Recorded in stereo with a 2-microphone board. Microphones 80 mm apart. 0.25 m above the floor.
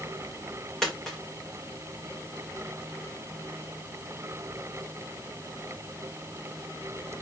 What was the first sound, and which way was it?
A dropped coin, 5° left (ahead or behind).